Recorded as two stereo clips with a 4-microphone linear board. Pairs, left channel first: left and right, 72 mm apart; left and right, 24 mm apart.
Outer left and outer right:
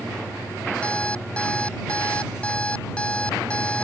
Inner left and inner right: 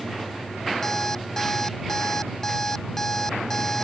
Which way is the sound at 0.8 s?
15° left (ahead or behind).